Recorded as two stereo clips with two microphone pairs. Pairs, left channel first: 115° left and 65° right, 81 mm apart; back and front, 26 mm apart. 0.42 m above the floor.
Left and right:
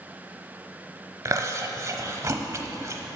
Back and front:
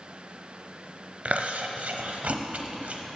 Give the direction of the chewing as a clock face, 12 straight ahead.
1 o'clock.